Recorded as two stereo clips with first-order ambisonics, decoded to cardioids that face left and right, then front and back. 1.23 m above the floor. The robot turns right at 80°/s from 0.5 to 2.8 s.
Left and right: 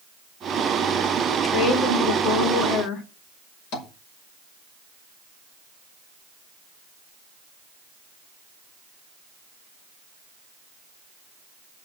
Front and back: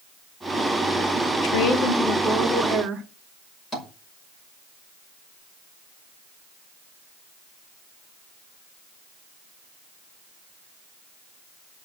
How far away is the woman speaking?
About 3 m.